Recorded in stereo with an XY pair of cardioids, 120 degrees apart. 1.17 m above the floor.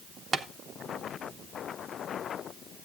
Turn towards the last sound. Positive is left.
turn(degrees=-35)